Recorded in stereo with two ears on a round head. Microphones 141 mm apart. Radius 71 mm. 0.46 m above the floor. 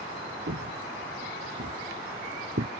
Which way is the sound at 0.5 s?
85° right.